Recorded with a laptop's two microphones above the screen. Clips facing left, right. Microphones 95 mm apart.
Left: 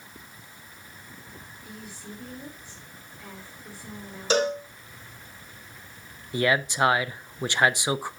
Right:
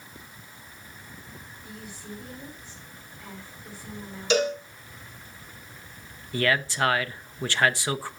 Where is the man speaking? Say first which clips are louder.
Left 1 dB; 20° left (ahead or behind), 0.6 m.